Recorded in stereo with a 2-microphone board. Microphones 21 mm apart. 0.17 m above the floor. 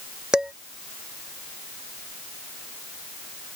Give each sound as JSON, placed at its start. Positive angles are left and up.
{"t": 0.3, "sound": "dishes clattering", "side_deg": -40}